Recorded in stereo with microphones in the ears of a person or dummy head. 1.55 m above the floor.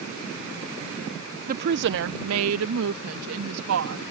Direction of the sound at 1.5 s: 45° right (ahead or behind).